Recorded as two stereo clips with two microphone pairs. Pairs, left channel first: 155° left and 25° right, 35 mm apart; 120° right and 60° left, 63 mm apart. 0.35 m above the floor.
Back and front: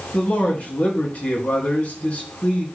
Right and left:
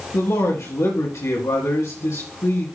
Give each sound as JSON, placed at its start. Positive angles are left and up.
{"t": 0.1, "sound": "a man speaking", "azimuth_deg": -155, "distance_m": 3.5}